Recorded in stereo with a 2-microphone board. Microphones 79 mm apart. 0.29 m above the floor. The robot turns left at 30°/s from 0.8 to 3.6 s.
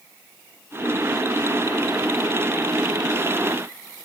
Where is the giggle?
No giggle in this recording.